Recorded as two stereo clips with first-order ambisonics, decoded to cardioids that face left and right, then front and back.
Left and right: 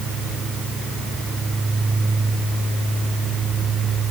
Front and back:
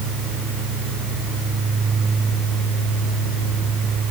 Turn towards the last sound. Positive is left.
No sound to turn to.